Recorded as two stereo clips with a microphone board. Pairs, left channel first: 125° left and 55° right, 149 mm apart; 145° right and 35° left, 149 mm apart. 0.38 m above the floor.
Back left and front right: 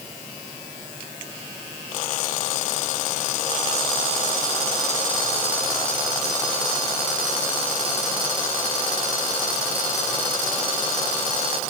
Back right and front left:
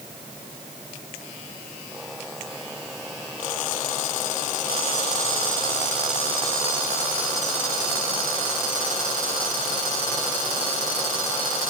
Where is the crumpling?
I don't hear crumpling.